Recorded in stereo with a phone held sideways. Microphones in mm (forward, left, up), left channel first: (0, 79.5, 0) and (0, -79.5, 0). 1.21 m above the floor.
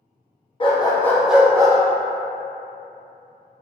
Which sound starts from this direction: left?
A dog barking, at 0.6 s.